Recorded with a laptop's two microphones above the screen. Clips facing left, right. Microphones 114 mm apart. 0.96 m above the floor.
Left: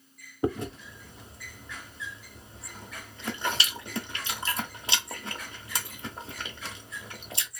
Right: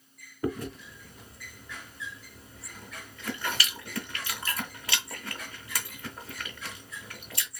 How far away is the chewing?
About 0.7 m.